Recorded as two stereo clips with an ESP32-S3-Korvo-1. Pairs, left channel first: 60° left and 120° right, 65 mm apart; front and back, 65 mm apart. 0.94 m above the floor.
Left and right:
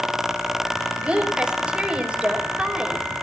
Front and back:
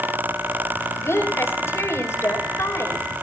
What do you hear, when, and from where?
1.0 s a woman speaking: 45° right, 5 m